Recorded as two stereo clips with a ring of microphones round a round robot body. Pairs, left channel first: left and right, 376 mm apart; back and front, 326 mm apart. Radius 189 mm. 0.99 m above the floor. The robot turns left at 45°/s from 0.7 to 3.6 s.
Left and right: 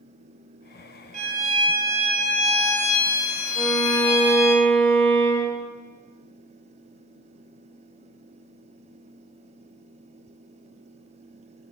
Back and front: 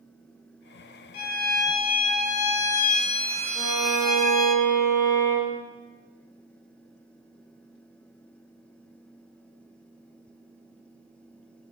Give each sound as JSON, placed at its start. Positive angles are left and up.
{"t": 1.1, "sound": "a violin", "azimuth_deg": -160, "distance_m": 1.5}
{"t": 3.5, "sound": "a violin", "azimuth_deg": 10, "distance_m": 4.5}